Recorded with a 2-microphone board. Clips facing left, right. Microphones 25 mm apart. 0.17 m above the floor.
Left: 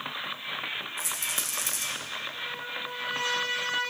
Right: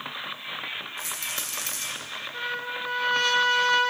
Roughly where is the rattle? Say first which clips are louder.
Even; right.